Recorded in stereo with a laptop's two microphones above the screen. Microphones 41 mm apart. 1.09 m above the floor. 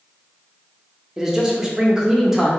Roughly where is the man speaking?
Centre.